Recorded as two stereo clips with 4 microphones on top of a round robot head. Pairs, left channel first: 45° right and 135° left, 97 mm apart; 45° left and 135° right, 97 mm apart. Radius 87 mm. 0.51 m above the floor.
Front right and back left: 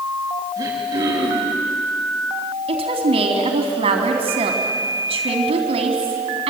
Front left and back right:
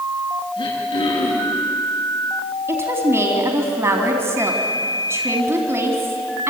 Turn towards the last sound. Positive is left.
turn(degrees=160)